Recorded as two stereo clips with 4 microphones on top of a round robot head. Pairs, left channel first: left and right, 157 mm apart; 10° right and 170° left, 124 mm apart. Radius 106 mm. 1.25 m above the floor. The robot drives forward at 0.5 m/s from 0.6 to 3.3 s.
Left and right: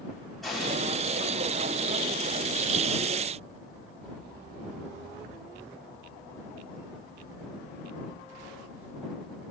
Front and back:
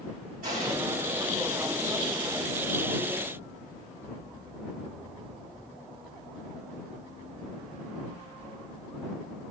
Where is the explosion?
Straight behind, 6 m.